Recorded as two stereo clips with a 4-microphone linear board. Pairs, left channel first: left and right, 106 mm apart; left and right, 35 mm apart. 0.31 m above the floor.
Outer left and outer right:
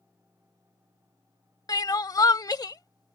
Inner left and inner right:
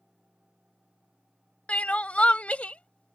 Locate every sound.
1.7 s crying: 40° left (ahead or behind)